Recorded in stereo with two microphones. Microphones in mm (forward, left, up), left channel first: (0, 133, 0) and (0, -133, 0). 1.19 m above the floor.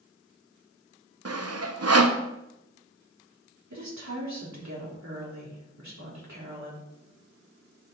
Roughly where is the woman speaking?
Right.